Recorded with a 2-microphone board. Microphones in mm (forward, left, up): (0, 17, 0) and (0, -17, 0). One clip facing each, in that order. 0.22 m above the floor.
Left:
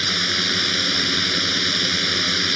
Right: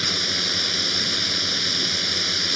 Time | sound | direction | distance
0.0 | a drone | 25° left (ahead or behind) | ?